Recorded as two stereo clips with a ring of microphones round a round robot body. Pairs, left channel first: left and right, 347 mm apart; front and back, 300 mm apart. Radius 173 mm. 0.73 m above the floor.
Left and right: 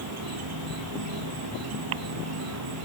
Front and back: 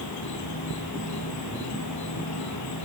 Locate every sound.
0.0 s an insect: 45° right, 1.0 m